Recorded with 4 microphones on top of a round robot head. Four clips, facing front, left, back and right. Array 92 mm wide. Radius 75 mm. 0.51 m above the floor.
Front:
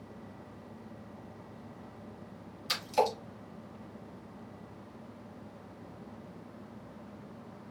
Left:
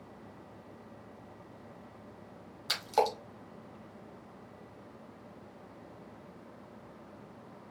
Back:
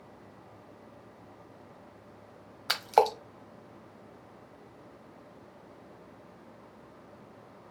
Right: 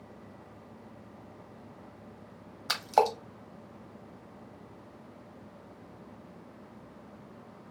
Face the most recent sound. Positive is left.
turn(degrees=-155)